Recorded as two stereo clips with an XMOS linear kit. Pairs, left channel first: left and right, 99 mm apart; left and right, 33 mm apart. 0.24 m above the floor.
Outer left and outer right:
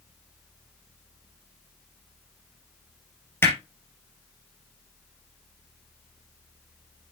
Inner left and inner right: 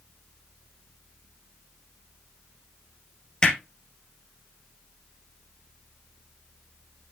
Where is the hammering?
20° left (ahead or behind), 3.5 m.